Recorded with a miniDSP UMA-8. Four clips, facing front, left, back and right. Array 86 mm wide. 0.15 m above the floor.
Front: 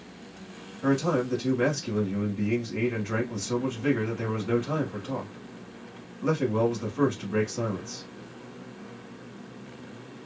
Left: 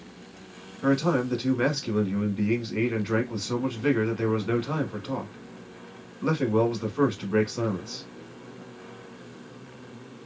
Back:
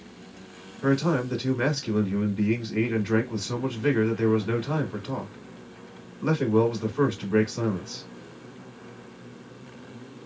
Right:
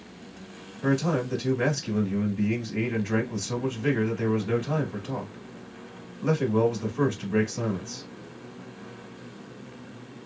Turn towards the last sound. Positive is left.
turn(degrees=120)